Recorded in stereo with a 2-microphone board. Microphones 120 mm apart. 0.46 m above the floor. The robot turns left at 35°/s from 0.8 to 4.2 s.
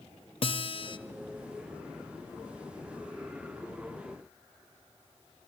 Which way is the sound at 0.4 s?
50° left (ahead or behind).